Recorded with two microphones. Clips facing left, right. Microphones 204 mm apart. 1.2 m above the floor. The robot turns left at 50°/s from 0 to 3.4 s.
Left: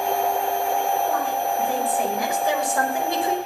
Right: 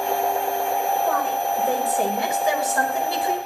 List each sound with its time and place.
1.1 s a woman speaking: 95° right, 6.5 m; by 3.4 s 150° left, 6.5 m